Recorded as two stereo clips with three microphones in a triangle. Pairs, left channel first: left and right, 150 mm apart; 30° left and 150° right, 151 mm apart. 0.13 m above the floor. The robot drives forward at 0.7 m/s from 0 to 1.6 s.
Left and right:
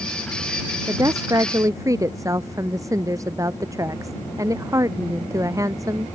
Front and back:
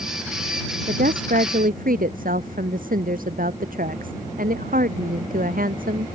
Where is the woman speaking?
155° right.